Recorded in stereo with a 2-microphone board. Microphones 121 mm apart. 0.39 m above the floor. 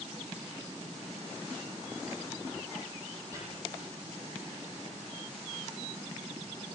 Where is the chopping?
25° right (ahead or behind), 10 m.